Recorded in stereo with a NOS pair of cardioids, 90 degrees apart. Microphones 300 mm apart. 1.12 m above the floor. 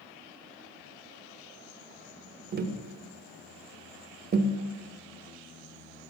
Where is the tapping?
35° right, 0.6 m.